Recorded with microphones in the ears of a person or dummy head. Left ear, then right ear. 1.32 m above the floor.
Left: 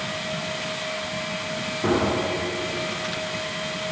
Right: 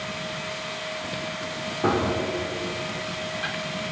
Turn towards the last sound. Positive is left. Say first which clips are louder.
# left 1 dB
turn(degrees=-30)  # may be behind; listen again after turning